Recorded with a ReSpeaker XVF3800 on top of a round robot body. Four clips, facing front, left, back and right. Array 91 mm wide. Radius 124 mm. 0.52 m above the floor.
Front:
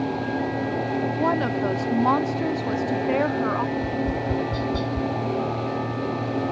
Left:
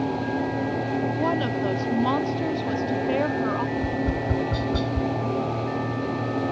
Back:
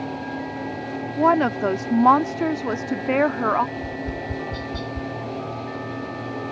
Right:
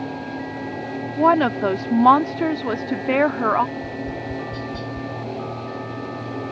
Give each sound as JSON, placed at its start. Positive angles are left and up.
{"t": 1.2, "sound": "a woman speaking", "azimuth_deg": -115}
{"t": 3.8, "sound": "tapping", "azimuth_deg": 90}